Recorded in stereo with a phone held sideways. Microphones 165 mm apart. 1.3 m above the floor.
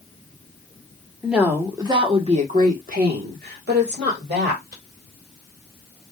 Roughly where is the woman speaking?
Centre.